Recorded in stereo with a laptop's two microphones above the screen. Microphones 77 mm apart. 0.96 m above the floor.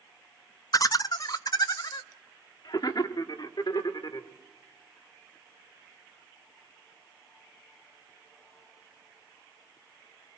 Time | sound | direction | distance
0.7 | laughter | 45° left (ahead or behind) | 0.6 m